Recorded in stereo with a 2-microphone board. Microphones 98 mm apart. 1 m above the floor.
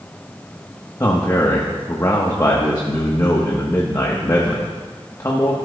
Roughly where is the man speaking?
Left.